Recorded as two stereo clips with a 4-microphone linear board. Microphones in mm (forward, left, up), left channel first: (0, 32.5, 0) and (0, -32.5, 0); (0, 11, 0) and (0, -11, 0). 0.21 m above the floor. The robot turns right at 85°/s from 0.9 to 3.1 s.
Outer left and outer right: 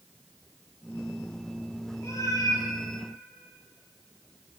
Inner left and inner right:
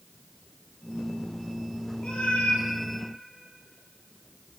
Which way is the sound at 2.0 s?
40° left.